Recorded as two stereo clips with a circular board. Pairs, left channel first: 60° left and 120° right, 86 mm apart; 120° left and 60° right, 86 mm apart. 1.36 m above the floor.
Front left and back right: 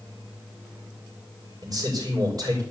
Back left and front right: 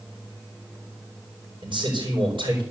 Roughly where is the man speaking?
Right.